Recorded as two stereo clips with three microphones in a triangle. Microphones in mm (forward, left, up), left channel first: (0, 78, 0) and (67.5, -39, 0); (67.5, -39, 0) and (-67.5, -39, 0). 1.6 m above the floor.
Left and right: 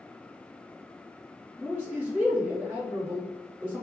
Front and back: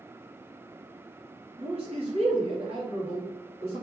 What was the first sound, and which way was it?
A man speaking, 140° right.